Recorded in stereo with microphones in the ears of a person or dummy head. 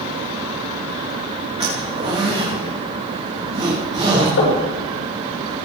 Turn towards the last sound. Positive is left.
turn(degrees=75)  # may be behind; listen again after turning